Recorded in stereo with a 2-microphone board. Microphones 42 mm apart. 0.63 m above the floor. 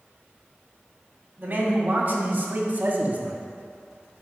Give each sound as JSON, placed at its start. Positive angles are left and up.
{"t": 1.4, "sound": "a man speaking", "side_deg": -40, "distance_m": 2.5}